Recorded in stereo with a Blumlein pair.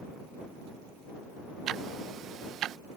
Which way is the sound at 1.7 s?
30° right.